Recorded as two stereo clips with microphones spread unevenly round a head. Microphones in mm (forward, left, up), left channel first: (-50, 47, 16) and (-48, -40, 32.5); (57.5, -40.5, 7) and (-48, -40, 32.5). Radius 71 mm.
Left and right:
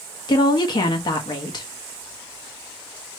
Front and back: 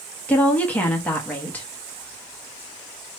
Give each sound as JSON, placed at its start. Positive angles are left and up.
{"t": 0.3, "sound": "a woman speaking", "azimuth_deg": 70, "distance_m": 1.4}